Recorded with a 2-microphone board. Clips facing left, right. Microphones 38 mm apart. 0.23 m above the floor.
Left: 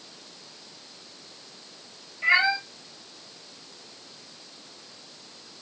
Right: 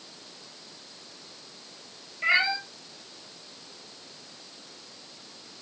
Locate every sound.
2.2 s a cat meowing: 15° right (ahead or behind), 2 m